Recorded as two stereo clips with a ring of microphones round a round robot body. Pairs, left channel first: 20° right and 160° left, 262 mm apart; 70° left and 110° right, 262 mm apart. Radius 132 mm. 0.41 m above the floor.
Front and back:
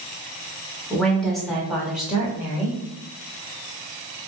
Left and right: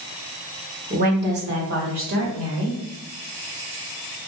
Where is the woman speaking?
105° right, 1.3 m; by 2.8 s 120° right, 2.0 m.